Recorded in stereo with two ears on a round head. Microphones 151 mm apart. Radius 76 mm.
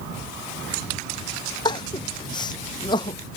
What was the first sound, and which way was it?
Crying, 25° left (ahead or behind).